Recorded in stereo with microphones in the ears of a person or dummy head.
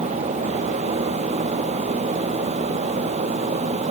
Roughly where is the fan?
Right.